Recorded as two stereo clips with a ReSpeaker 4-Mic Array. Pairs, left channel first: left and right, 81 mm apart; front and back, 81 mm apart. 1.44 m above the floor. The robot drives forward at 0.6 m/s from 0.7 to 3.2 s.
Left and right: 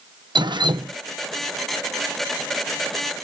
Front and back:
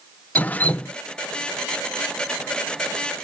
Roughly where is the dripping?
Right.